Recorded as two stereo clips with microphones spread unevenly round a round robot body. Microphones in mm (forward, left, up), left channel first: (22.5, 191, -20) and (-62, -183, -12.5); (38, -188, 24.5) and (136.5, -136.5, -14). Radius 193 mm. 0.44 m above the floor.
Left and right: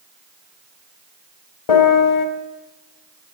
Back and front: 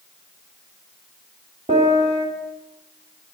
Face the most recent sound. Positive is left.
turn(degrees=70)